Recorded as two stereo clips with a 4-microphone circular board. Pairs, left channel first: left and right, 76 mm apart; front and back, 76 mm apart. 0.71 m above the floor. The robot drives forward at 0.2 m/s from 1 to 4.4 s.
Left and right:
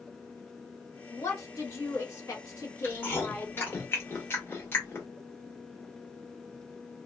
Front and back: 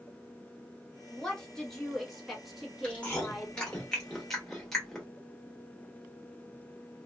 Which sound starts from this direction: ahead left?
Chewing, at 2.8 s.